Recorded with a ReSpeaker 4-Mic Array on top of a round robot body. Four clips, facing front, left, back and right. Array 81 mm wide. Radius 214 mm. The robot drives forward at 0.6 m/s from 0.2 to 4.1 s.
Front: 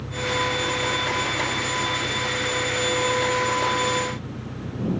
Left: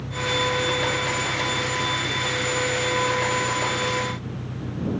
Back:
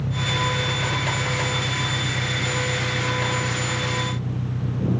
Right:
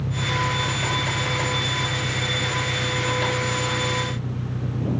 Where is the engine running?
155° right; by 5.0 s 165° right.